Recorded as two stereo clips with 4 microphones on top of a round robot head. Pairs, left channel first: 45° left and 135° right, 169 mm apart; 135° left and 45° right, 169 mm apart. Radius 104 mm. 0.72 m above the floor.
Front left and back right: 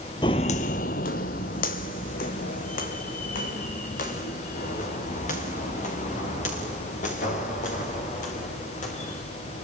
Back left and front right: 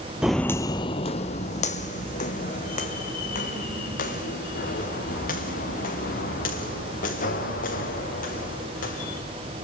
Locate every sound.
0.2 s footsteps: 30° left, 0.7 m; by 9.2 s 95° left, 8 m